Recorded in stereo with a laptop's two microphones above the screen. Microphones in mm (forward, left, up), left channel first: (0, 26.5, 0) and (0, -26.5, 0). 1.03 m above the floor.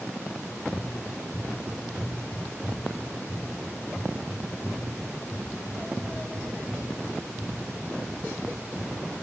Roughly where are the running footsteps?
Left.